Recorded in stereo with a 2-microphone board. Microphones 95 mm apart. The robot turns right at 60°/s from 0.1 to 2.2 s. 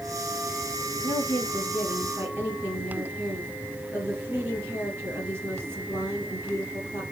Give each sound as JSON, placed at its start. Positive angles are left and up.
{"t": 1.0, "sound": "a woman speaking", "azimuth_deg": 135, "distance_m": 4.0}